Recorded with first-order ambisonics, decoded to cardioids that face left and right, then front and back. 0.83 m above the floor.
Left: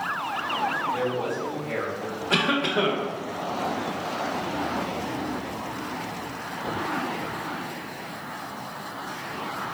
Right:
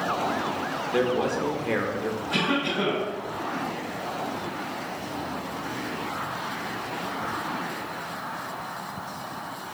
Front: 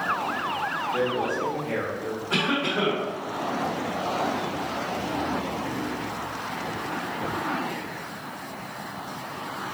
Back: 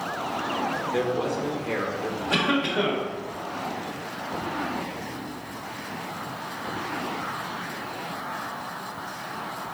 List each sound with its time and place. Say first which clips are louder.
0.9 s a man speaking: right 3 dB, front 1 dB; 105° right, 0.8 m
2.3 s a cough: left 4 dB, back 1 dB; 100° left, 1.2 m